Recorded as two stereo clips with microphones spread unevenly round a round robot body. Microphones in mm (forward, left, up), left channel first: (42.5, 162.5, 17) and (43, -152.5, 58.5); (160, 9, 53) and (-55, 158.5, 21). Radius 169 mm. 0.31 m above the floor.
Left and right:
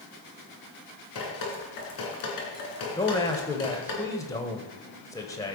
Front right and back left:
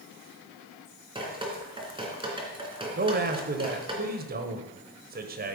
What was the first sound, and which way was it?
Dripping, 75° left.